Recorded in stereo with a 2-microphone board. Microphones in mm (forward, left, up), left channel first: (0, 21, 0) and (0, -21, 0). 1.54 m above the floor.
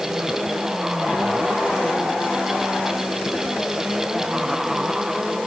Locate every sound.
Only background noise.